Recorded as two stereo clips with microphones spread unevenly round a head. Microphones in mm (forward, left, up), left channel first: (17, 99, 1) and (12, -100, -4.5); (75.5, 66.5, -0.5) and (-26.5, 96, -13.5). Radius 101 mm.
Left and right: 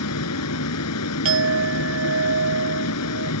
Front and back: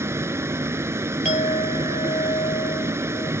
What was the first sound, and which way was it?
A vehicle, 95° left.